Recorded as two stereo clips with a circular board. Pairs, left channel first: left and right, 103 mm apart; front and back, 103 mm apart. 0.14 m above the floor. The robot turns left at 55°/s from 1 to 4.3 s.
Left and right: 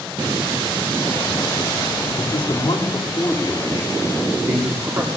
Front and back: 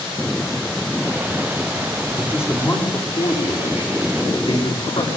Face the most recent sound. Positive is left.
turn(degrees=-40)